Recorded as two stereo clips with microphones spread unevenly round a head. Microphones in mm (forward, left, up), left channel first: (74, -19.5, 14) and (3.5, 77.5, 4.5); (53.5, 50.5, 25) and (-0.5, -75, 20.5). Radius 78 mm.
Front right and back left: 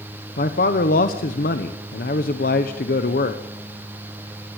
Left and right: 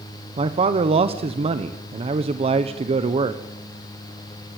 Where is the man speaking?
65° right, 1.0 m.